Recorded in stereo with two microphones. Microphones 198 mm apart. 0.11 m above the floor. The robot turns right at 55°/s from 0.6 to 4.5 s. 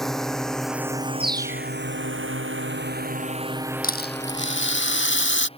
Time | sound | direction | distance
0.0 | a drone | centre (ahead or behind) | ?
1.2 | a bird | 30° right | ?
3.8 | a rattle | 50° left | ?